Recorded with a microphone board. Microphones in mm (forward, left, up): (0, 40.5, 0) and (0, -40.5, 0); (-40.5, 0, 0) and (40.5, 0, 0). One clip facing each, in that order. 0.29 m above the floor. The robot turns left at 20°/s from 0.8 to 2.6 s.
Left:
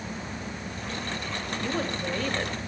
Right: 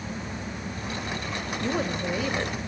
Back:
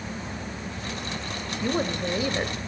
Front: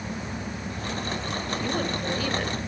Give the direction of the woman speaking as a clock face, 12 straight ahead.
5 o'clock.